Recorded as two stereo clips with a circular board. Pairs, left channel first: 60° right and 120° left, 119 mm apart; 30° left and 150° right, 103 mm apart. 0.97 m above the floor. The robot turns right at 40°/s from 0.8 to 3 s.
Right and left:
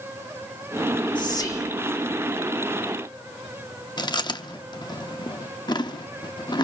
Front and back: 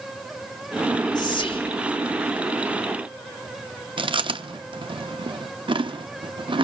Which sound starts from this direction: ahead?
Whispering, at 1.1 s.